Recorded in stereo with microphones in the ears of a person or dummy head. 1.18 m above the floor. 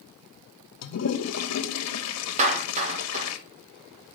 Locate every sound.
0.8 s a toilet flushing: 80° left, 1.2 m
2.4 s a clap: 40° right (ahead or behind), 1.2 m